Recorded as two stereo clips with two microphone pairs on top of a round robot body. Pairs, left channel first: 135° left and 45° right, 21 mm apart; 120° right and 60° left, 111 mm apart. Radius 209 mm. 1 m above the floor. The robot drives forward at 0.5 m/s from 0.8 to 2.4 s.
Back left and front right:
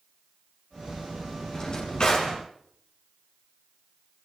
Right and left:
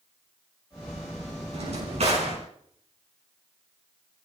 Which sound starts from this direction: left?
A drawer, at 1.5 s.